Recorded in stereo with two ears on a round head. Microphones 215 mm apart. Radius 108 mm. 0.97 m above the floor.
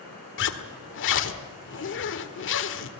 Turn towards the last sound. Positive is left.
turn(degrees=55)  # may be behind; listen again after turning